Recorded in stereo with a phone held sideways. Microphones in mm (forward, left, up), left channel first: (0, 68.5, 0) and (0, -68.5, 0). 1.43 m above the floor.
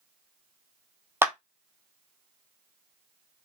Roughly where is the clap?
Centre.